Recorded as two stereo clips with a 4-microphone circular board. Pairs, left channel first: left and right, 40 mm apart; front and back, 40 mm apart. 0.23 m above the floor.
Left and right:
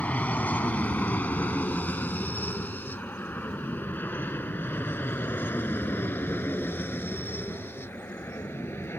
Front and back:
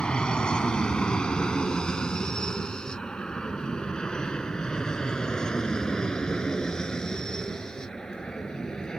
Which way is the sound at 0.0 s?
60° left.